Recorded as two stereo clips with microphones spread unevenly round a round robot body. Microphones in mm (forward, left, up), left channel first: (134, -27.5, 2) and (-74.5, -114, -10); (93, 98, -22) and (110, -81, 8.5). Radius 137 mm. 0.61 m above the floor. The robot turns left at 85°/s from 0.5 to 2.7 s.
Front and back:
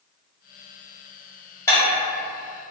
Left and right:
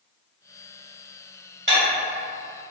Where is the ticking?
No ticking in this recording.